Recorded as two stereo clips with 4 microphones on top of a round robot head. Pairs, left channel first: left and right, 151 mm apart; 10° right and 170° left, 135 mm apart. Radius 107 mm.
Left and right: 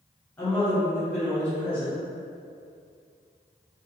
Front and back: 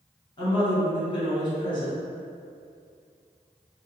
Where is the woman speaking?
15° left, 1.4 m.